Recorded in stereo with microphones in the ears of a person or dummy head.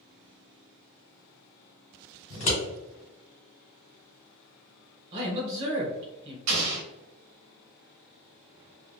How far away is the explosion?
About 0.9 m.